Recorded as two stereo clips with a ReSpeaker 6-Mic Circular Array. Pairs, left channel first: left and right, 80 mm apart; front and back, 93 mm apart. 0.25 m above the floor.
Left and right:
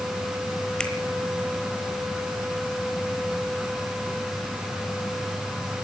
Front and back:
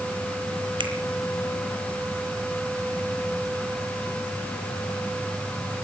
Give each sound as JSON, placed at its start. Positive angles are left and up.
{"t": 0.8, "sound": "a finger snap", "azimuth_deg": 170, "distance_m": 2.5}